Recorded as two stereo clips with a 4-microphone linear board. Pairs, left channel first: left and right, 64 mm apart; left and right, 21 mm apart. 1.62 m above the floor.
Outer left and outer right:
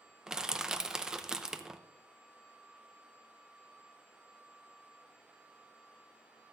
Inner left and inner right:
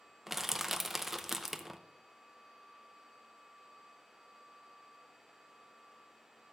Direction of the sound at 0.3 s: 5° right (ahead or behind).